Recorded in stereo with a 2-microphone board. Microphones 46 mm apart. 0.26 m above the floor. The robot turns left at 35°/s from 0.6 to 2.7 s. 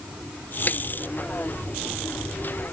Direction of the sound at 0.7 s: 40° left (ahead or behind).